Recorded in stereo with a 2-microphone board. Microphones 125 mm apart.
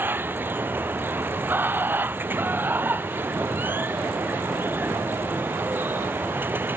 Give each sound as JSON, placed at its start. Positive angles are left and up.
{"t": 0.0, "sound": "running water", "side_deg": -15}